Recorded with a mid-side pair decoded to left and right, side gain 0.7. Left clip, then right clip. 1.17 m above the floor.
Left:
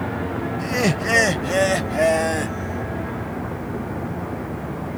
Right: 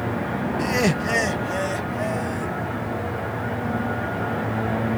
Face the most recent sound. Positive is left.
turn(degrees=50)